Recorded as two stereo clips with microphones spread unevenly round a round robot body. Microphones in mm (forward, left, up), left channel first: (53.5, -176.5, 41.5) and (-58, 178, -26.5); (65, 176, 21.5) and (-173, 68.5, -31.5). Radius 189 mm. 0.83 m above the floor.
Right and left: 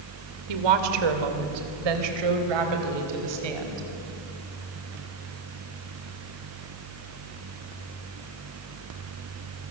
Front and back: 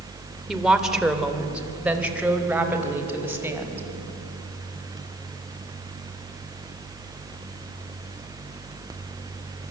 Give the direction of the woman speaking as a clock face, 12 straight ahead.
8 o'clock.